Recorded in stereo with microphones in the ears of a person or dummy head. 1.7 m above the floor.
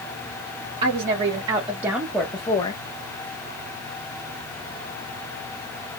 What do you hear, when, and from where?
0.8 s a woman speaking: 40° right (ahead or behind), 1.1 m; by 2.8 s 35° left (ahead or behind), 0.6 m